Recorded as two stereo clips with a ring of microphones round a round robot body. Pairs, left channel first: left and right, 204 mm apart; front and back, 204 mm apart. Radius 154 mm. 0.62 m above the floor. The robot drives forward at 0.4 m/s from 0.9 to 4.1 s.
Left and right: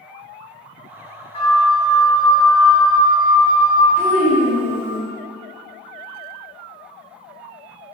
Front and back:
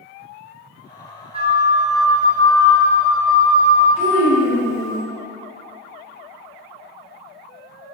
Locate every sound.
1.3 s a flute: 135° left, 0.9 m; by 3.9 s 165° left, 1.6 m
4.0 s a child speaking: 175° right, 1.8 m